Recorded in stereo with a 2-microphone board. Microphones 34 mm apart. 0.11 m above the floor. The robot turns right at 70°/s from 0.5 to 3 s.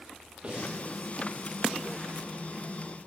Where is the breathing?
35° right (ahead or behind), 7 m; by 0.8 s 55° right (ahead or behind), 7 m.